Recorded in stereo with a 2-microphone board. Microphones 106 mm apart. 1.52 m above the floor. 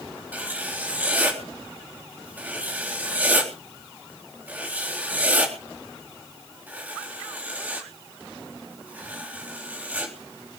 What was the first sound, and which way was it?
Writing, 15° right (ahead or behind).